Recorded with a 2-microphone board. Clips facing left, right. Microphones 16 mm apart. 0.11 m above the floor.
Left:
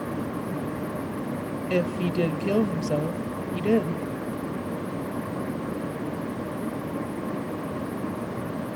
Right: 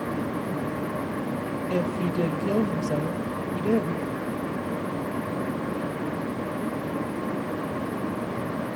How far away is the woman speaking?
About 2 m.